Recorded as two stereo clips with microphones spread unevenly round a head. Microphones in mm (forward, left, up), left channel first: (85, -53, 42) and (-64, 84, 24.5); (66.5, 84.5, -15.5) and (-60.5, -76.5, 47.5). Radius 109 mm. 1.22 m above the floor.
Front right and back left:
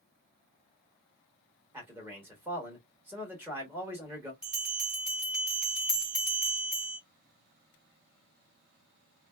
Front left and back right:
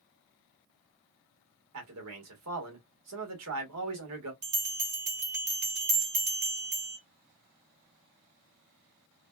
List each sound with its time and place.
1.7 s a man speaking: 145° right, 1.6 m
4.4 s a bell: 130° right, 1.2 m